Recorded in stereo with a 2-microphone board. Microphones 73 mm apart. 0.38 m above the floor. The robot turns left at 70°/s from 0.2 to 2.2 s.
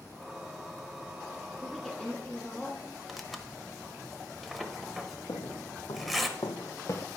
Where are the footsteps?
60° left (ahead or behind), 1.8 m; by 7.1 s 35° left (ahead or behind), 0.6 m.